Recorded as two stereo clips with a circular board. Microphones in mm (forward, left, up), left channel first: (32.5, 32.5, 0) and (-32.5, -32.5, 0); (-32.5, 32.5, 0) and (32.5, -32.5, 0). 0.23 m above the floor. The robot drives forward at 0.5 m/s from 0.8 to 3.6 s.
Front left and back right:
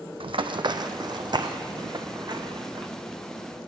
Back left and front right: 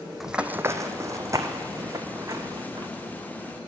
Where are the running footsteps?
135° right, 0.6 m; by 2.9 s 100° right, 1.1 m.